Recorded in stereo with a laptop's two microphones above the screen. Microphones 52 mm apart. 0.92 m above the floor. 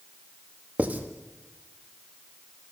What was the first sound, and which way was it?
Writing, 30° right (ahead or behind).